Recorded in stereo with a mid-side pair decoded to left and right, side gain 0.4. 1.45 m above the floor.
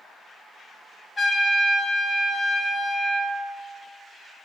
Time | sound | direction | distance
1.2 | a trumpet | 45° left | 3 m